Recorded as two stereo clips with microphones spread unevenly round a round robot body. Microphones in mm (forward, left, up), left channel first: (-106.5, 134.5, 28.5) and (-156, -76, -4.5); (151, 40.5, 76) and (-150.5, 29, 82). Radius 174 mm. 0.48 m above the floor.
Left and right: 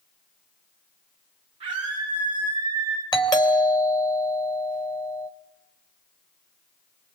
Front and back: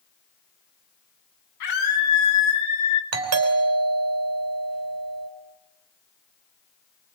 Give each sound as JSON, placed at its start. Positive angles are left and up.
{"t": 1.6, "sound": "a scream", "azimuth_deg": -30, "distance_m": 4.5}
{"t": 3.1, "sound": "a doorbell", "azimuth_deg": 150, "distance_m": 3.0}